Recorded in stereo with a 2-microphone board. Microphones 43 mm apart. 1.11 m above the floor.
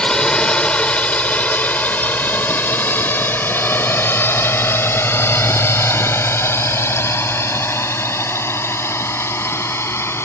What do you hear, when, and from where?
0.0 s a drone: 20° left (ahead or behind); by 10.2 s 85° left